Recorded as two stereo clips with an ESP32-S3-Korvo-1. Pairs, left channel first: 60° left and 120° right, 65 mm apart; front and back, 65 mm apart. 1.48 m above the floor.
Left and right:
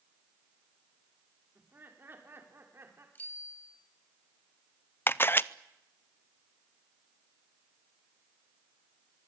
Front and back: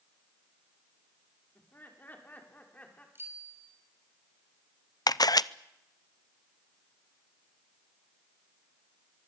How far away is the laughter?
About 5 m.